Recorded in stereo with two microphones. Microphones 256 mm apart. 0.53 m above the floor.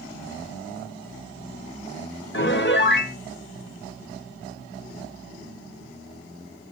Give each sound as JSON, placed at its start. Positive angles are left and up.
{"t": 2.3, "sound": "a piano", "side_deg": 45, "distance_m": 0.9}